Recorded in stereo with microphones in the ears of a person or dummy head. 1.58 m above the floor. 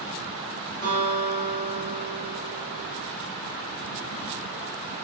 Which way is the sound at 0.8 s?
75° right (ahead or behind).